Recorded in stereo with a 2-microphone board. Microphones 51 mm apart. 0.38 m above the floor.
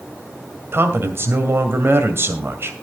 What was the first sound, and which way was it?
A man speaking, 50° right (ahead or behind).